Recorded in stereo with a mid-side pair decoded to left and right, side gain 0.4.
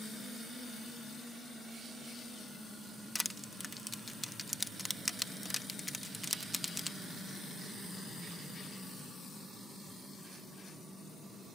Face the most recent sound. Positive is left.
turn(degrees=10)